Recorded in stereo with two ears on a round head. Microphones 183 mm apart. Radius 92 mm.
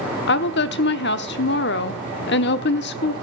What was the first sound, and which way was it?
A woman speaking, 55° left (ahead or behind).